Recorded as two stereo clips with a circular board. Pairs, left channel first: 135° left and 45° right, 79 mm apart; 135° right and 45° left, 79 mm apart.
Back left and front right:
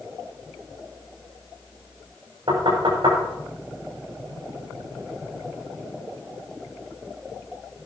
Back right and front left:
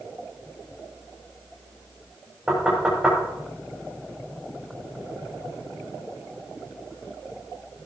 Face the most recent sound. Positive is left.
turn(degrees=-35)